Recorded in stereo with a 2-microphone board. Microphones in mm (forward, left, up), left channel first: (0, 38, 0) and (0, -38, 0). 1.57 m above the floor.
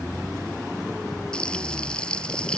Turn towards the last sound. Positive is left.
turn(degrees=15)  # may be behind; listen again after turning